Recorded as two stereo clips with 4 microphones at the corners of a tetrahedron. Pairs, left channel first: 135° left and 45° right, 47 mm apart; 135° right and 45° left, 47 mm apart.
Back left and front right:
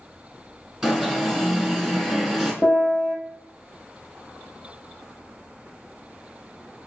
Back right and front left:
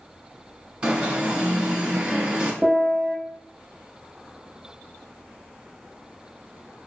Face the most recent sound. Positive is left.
turn(degrees=125)